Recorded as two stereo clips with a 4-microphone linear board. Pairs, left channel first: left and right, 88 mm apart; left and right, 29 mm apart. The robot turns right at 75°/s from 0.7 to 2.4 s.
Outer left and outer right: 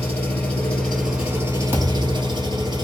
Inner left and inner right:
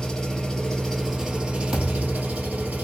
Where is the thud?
155° right, 1.6 m; by 2.4 s 105° right, 1.6 m.